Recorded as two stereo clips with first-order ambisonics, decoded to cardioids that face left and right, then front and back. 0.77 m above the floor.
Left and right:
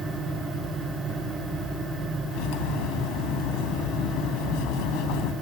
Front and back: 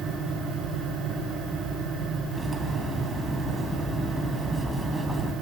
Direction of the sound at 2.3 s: 100° left.